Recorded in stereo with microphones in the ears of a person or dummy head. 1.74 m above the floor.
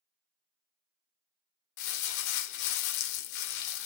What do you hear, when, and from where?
1.8 s crumpling: 65° left (ahead or behind), 0.9 m